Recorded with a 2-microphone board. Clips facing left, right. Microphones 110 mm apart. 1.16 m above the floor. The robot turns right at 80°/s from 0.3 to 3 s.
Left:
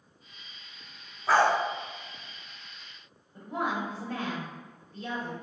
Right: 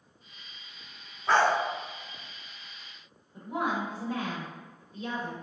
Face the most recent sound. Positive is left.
turn(degrees=-15)  # may be behind; listen again after turning